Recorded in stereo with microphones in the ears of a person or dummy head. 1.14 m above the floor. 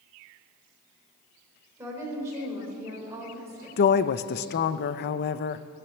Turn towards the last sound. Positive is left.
turn(degrees=50)  # may be behind; listen again after turning